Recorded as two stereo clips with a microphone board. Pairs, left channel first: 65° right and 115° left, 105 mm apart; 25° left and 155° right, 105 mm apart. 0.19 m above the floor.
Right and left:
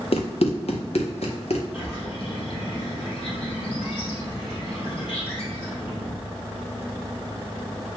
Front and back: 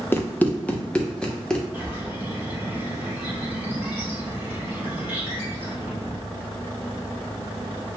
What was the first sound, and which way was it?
Running footsteps, 50° right.